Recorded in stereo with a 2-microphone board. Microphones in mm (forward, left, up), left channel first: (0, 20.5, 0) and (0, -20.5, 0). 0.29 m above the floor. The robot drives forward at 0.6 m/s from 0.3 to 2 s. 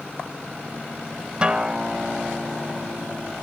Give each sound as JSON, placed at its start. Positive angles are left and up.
{"t": 1.4, "sound": "a guitar", "side_deg": -25, "distance_m": 0.8}